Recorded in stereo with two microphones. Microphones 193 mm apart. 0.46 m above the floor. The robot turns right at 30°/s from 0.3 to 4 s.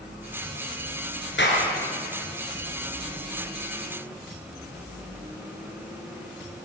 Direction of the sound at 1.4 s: 70° left (ahead or behind).